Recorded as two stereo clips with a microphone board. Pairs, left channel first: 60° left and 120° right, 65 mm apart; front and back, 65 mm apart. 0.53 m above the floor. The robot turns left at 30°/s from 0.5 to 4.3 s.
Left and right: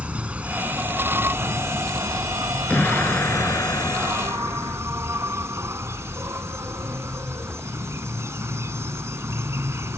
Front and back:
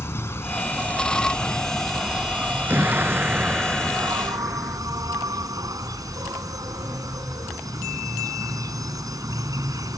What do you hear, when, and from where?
0.0 s an insect: 50° right; by 10.0 s 165° right
2.7 s an explosion: 125° left; by 4.8 s 80° left